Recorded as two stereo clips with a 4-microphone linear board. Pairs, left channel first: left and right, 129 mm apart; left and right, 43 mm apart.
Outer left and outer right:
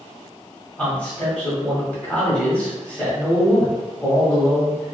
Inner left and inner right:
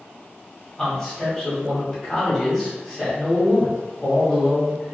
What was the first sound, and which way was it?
A man speaking, 10° left (ahead or behind).